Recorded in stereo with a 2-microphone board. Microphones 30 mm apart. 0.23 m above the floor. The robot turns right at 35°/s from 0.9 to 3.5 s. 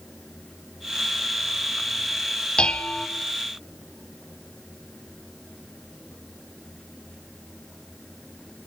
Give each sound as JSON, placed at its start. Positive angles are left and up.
{"t": 2.6, "sound": "dishes clattering", "side_deg": 35, "distance_m": 1.0}